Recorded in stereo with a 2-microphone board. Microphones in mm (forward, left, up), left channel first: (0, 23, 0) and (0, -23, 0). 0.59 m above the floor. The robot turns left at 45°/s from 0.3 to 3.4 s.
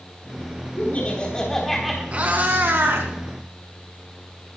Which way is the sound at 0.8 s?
45° left.